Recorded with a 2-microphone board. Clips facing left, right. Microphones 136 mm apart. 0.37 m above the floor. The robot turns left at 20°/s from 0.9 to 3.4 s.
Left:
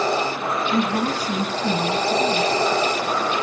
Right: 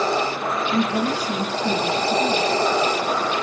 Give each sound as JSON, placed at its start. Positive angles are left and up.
{"t": 0.7, "sound": "a woman speaking", "azimuth_deg": 60, "distance_m": 2.5}